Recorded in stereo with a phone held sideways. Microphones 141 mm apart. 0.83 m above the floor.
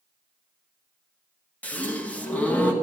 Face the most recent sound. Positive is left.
turn(degrees=10)  # may be behind; listen again after turning